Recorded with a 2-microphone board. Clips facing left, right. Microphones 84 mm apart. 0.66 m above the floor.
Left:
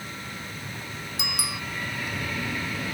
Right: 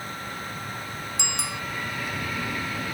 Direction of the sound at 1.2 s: 5° left (ahead or behind).